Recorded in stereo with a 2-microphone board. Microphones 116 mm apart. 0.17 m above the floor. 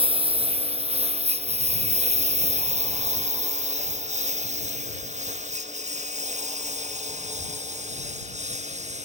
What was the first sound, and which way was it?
A lawn mower, 55° right (ahead or behind).